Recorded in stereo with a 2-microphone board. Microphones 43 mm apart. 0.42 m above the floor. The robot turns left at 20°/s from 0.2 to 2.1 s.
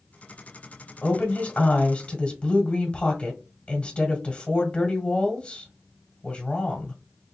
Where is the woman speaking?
40° left (ahead or behind), 1.5 m; by 6.9 s 25° left (ahead or behind), 1.5 m.